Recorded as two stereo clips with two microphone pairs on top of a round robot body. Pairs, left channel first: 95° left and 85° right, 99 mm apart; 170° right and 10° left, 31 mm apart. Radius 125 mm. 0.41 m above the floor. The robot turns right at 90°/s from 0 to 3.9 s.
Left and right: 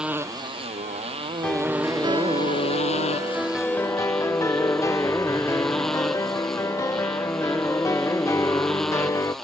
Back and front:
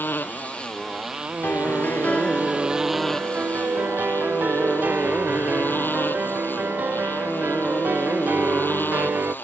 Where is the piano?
170° left; by 9.3 s 35° left.